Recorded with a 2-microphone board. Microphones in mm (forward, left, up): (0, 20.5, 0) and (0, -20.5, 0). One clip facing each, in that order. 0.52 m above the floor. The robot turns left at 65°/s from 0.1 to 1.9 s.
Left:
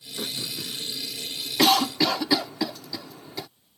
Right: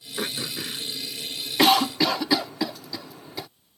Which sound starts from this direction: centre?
A cough, at 1.6 s.